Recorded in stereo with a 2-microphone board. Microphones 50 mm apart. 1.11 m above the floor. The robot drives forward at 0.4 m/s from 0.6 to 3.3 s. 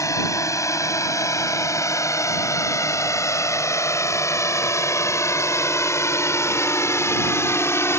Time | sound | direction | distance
0.0 | a drone | 75° left (ahead or behind) | ?